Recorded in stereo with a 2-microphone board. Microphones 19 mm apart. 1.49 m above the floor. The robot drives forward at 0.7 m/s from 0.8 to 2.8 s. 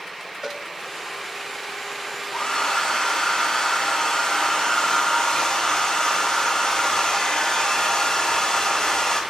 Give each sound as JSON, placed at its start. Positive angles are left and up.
{"t": 0.4, "sound": "a cowbell", "side_deg": -30, "distance_m": 0.8}
{"t": 2.3, "sound": "a hair dryer", "side_deg": 45, "distance_m": 4.5}